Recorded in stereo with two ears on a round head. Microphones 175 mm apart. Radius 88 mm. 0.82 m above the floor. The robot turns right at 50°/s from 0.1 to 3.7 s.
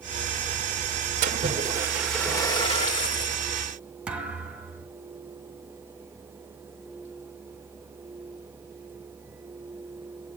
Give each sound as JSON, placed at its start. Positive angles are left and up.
{"t": 1.2, "sound": "a splash", "azimuth_deg": -45, "distance_m": 1.8}
{"t": 4.1, "sound": "a thud", "side_deg": -5, "distance_m": 3.0}